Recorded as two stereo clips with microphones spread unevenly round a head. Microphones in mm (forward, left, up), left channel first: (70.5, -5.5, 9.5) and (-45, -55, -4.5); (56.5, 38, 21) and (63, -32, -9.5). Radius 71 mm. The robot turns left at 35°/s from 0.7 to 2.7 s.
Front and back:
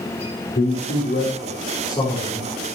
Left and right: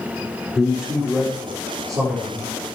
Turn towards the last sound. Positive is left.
turn(degrees=-65)